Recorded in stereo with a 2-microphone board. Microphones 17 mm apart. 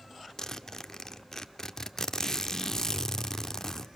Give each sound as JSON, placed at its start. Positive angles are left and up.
{"t": 0.4, "sound": "a zipper", "side_deg": 30, "distance_m": 0.8}